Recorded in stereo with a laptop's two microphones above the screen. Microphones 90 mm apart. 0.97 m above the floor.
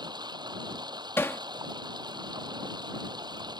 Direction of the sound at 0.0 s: 60° right (ahead or behind).